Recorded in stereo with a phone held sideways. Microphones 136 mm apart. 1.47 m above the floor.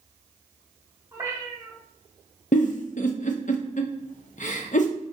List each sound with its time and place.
1.1 s a cat meowing: 20° right (ahead or behind), 0.9 m
2.5 s a giggle: 60° left (ahead or behind), 0.5 m